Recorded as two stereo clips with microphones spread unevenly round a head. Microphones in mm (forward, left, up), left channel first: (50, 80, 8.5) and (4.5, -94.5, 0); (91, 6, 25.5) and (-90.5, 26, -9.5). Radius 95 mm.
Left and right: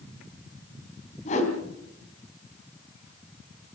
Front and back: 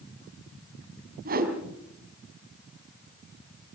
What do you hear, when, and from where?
1.2 s a whoosh: 130° left, 3.5 m